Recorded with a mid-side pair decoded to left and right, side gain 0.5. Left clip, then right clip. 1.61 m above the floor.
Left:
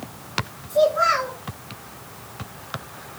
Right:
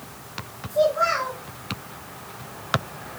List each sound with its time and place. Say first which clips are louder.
0.7 s a child speaking: left 2 dB; 45° left, 1.8 m